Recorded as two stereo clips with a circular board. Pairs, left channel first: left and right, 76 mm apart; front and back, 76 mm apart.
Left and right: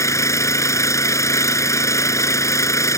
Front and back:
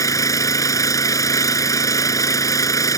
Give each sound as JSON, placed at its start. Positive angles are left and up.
{"t": 0.0, "sound": "an engine running", "azimuth_deg": 45}